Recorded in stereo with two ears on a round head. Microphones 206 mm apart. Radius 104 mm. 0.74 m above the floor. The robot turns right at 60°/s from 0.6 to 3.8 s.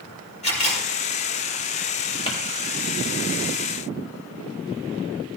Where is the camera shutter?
30° left (ahead or behind), 7 m; by 0.8 s 45° left (ahead or behind), 7 m.